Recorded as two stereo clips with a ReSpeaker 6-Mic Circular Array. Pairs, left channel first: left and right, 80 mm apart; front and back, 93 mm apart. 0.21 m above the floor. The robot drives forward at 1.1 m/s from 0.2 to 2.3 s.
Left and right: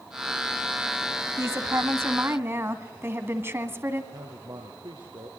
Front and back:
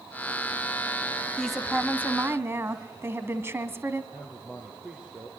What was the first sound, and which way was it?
A woman speaking, 80° right.